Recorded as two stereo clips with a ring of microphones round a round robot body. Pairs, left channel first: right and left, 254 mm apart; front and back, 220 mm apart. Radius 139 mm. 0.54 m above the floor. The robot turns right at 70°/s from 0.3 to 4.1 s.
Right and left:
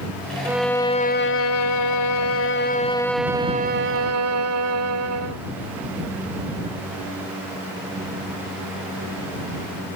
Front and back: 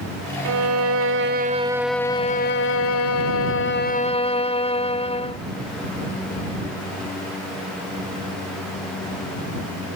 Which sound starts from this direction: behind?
A violin, at 0.5 s.